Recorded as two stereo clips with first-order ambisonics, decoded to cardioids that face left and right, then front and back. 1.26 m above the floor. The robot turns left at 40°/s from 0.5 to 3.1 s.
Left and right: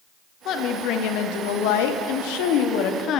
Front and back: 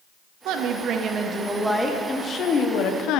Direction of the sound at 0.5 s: 140° left.